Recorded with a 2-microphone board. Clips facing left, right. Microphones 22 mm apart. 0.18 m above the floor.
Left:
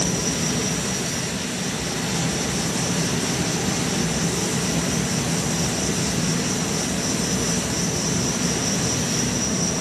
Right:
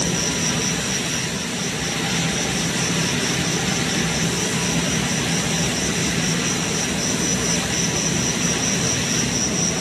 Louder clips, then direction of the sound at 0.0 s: Right 2 dB; 40° right (ahead or behind).